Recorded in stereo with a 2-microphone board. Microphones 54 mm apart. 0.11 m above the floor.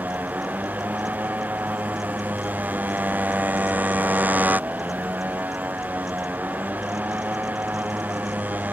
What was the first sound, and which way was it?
A motorcycle, 35° right (ahead or behind).